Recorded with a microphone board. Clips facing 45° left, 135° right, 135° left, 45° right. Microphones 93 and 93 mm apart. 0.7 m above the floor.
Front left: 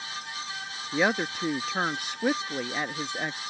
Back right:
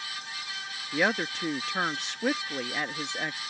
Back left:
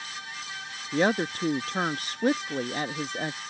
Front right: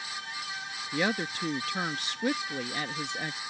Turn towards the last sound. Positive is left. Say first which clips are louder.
# front left 2 dB, back left 6 dB
turn(degrees=125)